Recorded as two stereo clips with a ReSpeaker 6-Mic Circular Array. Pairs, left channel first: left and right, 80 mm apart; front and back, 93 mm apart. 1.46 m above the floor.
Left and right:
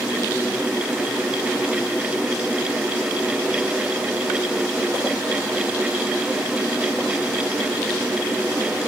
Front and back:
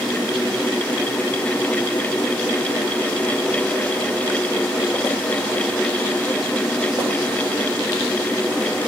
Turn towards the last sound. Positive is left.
No sound to turn to.